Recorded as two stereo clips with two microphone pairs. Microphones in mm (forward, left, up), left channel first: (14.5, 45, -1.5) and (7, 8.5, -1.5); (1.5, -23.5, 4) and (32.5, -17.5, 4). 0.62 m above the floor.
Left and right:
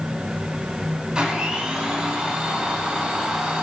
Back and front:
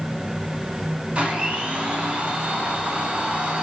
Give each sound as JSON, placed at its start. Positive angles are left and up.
{"t": 1.1, "sound": "a blender", "azimuth_deg": -35, "distance_m": 5.5}